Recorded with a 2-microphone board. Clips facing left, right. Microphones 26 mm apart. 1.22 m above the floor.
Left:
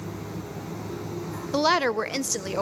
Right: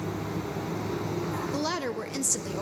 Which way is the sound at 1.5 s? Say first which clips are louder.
Left 12 dB; 40° left (ahead or behind).